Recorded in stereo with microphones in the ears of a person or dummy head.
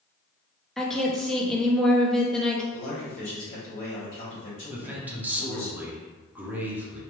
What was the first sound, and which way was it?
A woman speaking, centre (ahead or behind).